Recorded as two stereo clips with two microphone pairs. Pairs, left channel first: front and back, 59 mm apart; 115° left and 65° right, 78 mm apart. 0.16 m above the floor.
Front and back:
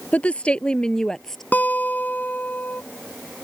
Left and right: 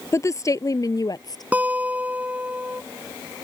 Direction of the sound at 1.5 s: 15° right.